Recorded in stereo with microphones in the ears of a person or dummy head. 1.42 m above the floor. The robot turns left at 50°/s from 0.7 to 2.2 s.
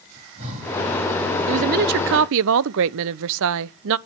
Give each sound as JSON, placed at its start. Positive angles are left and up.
{"t": 0.2, "sound": "breathing", "side_deg": -30, "distance_m": 9.5}
{"t": 1.5, "sound": "a woman speaking", "azimuth_deg": -30, "distance_m": 0.5}